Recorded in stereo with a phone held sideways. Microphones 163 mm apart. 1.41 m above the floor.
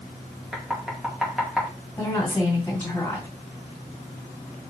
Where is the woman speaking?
15° left (ahead or behind), 2.5 m.